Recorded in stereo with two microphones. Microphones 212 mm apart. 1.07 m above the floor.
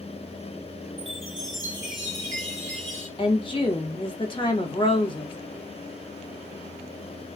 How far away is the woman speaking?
About 1.2 m.